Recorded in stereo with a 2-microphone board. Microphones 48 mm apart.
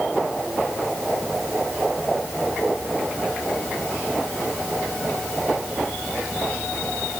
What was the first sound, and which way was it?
Only background noise.